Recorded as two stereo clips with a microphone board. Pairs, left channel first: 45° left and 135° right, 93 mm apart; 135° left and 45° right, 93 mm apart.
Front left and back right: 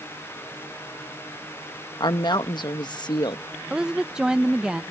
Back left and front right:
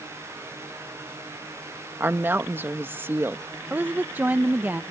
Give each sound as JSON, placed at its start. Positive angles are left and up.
{"t": 2.0, "sound": "a woman speaking", "azimuth_deg": 20}
{"t": 3.7, "sound": "a woman speaking", "azimuth_deg": -70}